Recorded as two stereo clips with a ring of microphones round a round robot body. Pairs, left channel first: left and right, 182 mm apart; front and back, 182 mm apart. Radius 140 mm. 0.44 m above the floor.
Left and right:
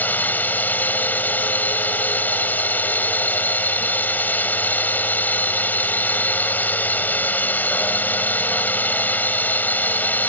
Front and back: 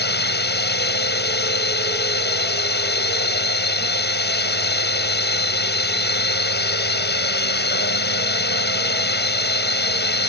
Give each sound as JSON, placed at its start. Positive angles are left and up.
{"t": 0.0, "sound": "a drone", "azimuth_deg": 10}